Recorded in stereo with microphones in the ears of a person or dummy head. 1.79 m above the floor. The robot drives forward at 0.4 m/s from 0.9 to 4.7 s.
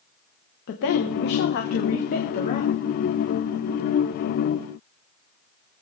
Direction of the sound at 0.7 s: 60° left (ahead or behind).